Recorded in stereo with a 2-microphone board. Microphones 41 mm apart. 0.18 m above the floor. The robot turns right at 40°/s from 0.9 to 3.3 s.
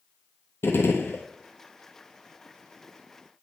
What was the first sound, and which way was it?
A gunshot, 80° left.